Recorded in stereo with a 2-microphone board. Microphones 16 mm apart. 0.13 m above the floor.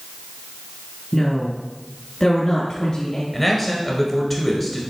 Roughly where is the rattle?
No rattle in this recording.